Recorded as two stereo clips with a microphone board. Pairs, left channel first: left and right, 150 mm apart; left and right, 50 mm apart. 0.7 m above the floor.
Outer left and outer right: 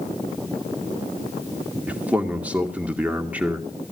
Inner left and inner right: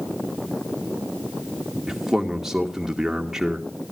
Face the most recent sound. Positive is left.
turn(degrees=-10)  # may be behind; listen again after turning